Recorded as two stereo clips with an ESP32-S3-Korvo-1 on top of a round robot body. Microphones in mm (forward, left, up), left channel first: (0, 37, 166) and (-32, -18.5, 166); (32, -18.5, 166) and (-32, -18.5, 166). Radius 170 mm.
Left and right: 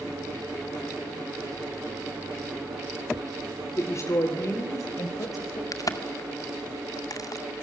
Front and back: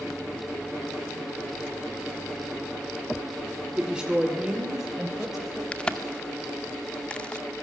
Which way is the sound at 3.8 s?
100° left.